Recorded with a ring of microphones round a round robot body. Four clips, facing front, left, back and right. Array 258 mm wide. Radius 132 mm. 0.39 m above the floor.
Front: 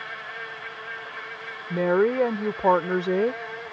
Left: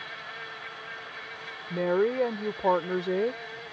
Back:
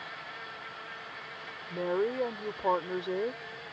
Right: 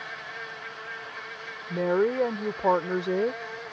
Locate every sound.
0.0 s an insect: 20° right
1.7 s a woman speaking: 5° right